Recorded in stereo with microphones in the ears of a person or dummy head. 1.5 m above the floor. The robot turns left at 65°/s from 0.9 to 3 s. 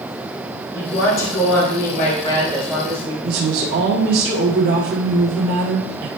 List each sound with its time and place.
0.7 s a woman speaking: 115° left, 2 m; by 3.1 s 20° right, 2 m
3.2 s a woman speaking: 75° right (ahead or behind), 1.3 m